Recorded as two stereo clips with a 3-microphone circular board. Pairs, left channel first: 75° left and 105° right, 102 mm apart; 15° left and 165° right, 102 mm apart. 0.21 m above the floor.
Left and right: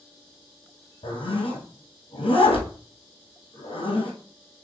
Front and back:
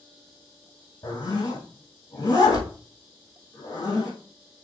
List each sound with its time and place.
1.0 s a zipper: 70° left, 1.8 m